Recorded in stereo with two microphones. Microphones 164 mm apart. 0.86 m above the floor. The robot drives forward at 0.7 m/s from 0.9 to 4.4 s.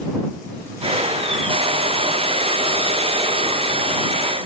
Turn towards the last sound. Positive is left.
No sound to turn to.